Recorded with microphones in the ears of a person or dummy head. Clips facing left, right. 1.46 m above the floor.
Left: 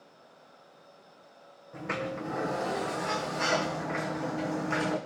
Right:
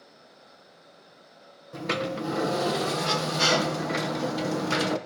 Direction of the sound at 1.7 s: 55° right (ahead or behind).